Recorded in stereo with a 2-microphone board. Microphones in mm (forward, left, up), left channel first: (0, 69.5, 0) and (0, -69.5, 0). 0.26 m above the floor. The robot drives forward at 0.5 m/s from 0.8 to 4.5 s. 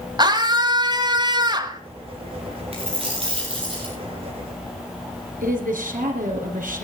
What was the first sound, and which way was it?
A scream, 30° right (ahead or behind).